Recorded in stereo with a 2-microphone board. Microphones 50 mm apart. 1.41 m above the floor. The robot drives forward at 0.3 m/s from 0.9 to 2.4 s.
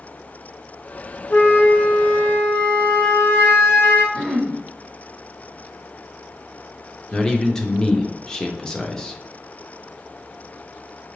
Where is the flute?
45° left (ahead or behind), 0.7 m; by 4.0 s 35° left (ahead or behind), 0.9 m.